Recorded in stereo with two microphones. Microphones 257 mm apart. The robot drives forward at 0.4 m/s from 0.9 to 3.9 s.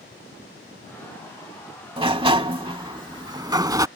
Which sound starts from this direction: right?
A sliding door, at 2.0 s.